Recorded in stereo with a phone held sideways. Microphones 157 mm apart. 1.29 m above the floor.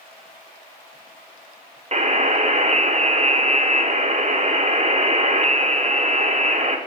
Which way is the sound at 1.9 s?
45° right (ahead or behind).